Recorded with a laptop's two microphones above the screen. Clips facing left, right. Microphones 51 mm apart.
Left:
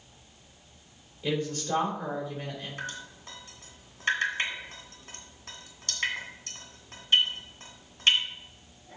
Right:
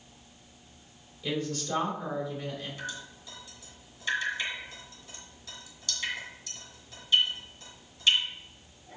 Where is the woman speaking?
30° left (ahead or behind), 3 m.